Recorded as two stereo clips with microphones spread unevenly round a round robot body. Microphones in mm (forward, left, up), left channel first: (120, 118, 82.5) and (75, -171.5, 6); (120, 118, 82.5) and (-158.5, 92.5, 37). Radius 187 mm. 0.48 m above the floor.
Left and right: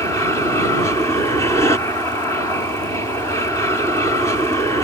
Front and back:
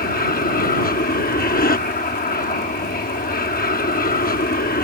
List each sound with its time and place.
0.0 s an aircraft: 20° right